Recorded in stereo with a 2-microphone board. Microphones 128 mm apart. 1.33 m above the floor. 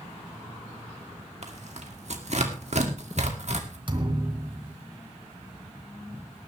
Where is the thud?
40° right (ahead or behind), 2.5 m.